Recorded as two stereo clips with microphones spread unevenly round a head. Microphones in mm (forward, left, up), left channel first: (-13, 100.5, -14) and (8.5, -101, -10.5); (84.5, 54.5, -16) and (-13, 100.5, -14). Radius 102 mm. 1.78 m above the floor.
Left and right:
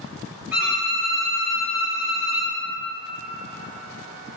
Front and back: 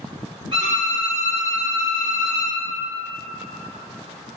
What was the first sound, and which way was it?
A violin, 165° right.